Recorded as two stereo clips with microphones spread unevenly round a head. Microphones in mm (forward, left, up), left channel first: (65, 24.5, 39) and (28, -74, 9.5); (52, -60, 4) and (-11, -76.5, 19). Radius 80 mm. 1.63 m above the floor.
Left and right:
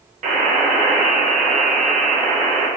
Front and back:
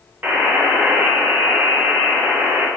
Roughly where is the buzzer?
Behind right.